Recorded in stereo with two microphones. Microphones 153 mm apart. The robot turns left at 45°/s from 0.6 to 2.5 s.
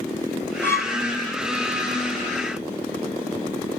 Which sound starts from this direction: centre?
A violin, at 0.6 s.